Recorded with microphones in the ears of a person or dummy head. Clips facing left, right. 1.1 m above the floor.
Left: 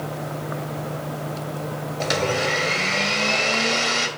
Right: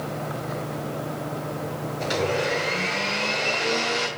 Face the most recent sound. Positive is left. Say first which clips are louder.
# left 1 dB
turn(degrees=65)  # may be behind; listen again after turning